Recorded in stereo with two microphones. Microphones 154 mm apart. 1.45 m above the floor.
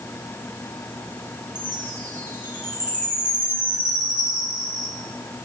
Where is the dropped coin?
No dropped coin in this recording.